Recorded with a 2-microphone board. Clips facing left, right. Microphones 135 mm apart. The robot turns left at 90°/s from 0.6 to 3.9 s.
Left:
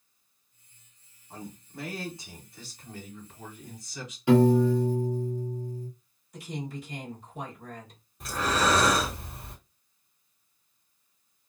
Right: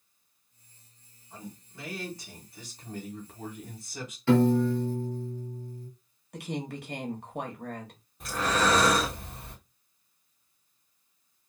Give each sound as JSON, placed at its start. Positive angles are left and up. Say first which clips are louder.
{"t": 1.3, "sound": "a man speaking", "louder": "left 3 dB", "azimuth_deg": 105, "distance_m": 1.5}
{"t": 4.3, "sound": "a piano", "louder": "left 2 dB", "side_deg": 15, "distance_m": 1.0}
{"t": 6.3, "sound": "a woman speaking", "louder": "right 2 dB", "side_deg": -65, "distance_m": 1.0}
{"t": 8.2, "sound": "breathing", "louder": "even", "side_deg": 0, "distance_m": 1.6}